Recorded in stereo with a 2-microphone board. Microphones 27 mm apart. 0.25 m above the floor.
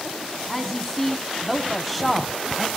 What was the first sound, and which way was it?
A woman speaking, 10° left (ahead or behind).